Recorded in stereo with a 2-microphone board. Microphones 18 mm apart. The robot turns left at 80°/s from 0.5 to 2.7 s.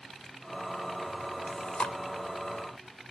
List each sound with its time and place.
1.5 s chewing: 80° left, 1.3 m; by 1.9 s 40° left (ahead or behind), 1.3 m